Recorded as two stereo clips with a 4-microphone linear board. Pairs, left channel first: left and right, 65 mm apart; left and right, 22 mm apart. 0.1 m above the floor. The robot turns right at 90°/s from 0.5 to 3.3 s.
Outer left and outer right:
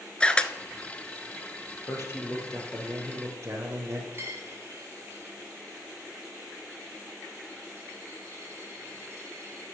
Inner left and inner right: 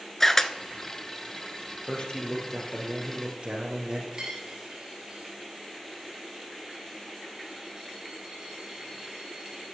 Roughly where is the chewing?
No chewing in this recording.